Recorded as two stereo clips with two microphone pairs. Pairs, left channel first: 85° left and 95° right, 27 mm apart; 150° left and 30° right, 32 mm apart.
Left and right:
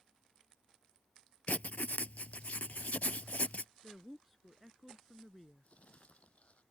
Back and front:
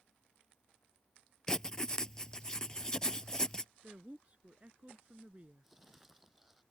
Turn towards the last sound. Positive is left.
turn(degrees=50)